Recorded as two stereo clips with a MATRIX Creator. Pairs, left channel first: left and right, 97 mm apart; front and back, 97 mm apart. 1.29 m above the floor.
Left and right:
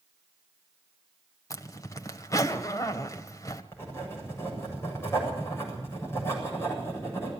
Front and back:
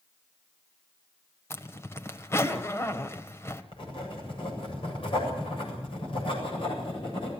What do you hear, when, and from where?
1.5 s a zipper: 50° left, 1.4 m
3.7 s writing: 25° left, 7.5 m